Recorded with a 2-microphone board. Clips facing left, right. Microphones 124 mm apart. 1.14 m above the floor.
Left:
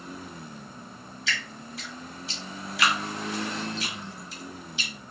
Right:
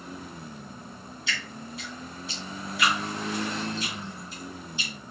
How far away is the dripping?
About 1.5 m.